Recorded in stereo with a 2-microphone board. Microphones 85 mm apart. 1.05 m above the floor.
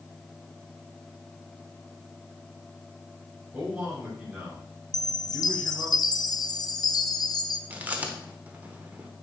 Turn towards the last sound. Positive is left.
turn(degrees=-20)  # may be behind; listen again after turning